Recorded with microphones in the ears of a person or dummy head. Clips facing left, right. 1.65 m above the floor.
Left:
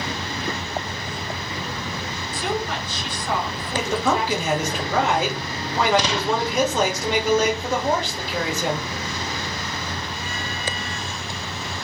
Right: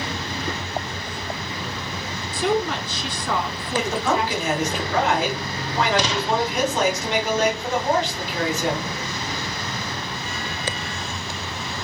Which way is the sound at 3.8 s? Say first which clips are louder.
Even; 85° left.